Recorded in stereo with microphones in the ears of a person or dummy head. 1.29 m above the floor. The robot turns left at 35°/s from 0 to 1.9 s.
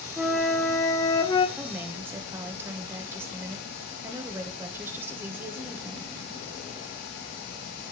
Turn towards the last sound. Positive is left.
turn(degrees=-15)  # may be behind; listen again after turning